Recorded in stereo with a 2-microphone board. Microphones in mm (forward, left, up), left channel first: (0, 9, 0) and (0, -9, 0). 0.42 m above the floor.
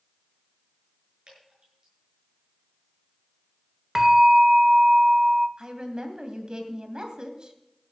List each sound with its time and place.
1.3 s dripping: 35° right (ahead or behind), 7.5 m
4.0 s a bell: 15° right (ahead or behind), 1.2 m
5.6 s a woman speaking: 45° right (ahead or behind), 2.5 m